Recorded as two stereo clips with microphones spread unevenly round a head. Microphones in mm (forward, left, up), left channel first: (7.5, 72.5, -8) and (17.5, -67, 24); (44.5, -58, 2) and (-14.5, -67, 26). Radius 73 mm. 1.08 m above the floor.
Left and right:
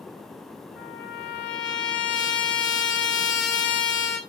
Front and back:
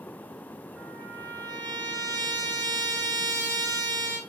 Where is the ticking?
I don't hear ticking.